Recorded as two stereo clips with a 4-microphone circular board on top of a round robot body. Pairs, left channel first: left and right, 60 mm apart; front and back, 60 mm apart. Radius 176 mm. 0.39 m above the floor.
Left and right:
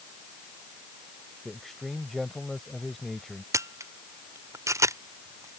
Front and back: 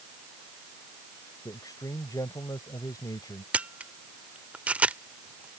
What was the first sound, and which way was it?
A man speaking, straight ahead.